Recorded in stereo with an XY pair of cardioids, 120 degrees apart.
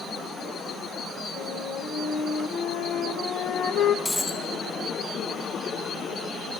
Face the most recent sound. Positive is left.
turn(degrees=15)